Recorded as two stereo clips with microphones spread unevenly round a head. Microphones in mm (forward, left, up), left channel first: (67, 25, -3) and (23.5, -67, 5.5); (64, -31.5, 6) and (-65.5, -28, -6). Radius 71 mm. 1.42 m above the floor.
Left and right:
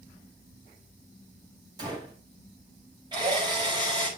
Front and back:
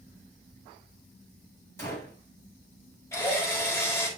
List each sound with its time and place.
1.8 s a gunshot: 70° right, 7.5 m
3.1 s a drill: 70° right, 6 m